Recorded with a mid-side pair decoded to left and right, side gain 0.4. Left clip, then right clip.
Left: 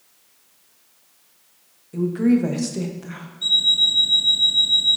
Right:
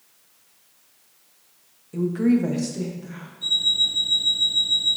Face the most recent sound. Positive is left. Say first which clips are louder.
# left 4 dB
turn(degrees=40)